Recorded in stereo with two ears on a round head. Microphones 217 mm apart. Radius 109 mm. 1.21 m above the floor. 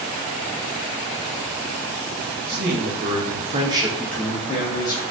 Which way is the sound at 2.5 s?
40° right (ahead or behind).